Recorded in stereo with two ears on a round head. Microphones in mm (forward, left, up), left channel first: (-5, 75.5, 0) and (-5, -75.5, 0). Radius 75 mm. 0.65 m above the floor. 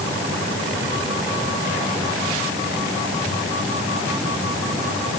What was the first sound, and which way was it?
Only background noise.